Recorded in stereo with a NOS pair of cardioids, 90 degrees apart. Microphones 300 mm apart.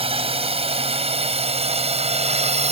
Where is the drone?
20° right.